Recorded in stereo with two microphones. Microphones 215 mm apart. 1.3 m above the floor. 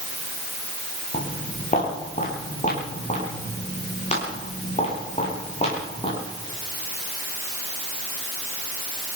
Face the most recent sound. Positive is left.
turn(degrees=30)  # may be behind; listen again after turning